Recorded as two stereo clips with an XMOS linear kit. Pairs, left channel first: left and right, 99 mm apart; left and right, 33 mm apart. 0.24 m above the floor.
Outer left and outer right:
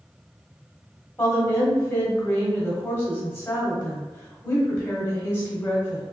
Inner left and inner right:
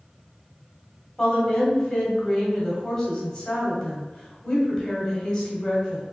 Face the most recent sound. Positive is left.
turn(degrees=25)  # may be behind; listen again after turning